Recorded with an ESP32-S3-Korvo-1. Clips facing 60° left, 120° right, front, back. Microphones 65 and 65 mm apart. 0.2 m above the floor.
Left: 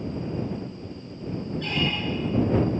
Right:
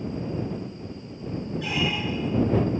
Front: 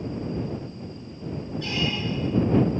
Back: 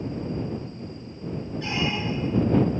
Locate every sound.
1.6 s a squeak: 170° left